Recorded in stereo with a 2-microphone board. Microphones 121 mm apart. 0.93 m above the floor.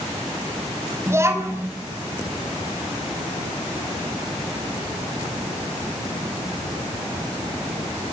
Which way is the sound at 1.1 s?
20° right (ahead or behind).